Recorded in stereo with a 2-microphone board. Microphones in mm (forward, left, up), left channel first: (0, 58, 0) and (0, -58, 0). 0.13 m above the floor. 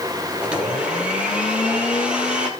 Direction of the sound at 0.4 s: 10° right (ahead or behind).